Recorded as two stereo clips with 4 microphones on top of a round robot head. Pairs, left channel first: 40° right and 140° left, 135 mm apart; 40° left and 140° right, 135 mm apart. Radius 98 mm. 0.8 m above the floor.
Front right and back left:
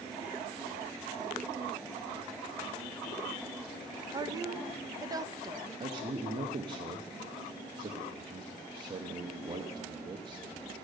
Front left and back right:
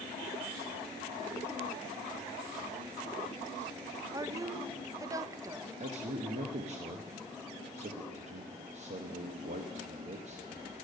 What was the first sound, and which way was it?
A woman speaking, 175° left.